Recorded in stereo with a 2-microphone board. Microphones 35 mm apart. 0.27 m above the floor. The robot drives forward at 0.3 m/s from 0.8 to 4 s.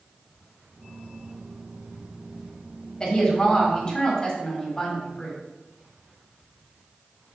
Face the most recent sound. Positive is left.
turn(degrees=20)  # may be behind; listen again after turning